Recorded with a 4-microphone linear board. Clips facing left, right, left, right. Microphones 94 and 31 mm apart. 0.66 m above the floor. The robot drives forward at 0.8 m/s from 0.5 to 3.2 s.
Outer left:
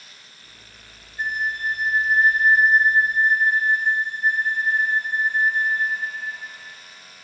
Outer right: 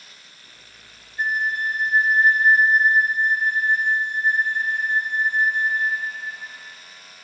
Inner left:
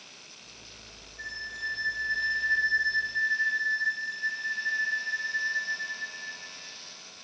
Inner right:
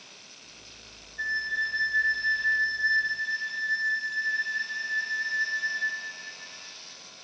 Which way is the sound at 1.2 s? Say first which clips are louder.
Outer right 2 dB, inner right 8 dB; 45° right (ahead or behind).